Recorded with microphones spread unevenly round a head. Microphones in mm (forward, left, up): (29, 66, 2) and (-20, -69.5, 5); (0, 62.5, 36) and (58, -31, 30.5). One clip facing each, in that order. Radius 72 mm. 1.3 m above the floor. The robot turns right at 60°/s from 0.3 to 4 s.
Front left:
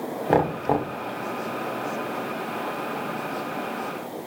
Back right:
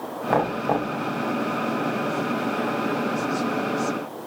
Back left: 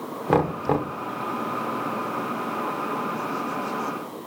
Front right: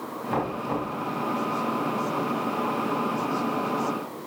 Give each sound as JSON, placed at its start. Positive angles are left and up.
{"t": 0.3, "sound": "knocking", "azimuth_deg": 135, "distance_m": 0.8}